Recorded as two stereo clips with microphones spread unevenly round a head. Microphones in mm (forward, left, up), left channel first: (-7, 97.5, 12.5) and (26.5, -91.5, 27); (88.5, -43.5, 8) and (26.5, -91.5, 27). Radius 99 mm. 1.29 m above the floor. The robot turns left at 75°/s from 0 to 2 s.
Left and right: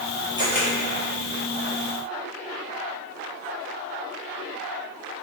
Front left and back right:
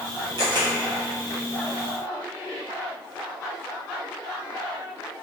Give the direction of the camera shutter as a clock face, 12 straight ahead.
5 o'clock.